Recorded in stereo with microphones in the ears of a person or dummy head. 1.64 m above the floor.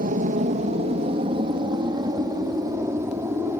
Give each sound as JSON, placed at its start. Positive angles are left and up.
{"t": 0.0, "sound": "an aircraft", "side_deg": -45}